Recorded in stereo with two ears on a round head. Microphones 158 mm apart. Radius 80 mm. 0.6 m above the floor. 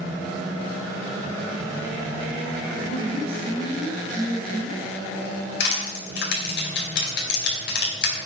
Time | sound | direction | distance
2.8 | a woman speaking | 60° right (ahead or behind) | 4.5 m
5.6 | crushing | 70° left (ahead or behind) | 4 m